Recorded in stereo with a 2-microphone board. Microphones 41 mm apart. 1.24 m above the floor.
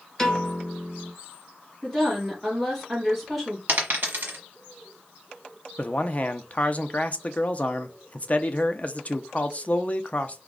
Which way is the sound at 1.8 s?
Centre (ahead or behind).